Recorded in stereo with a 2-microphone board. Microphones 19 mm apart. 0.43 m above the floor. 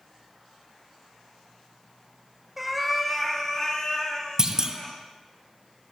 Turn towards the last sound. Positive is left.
turn(degrees=-30)  # may be behind; listen again after turning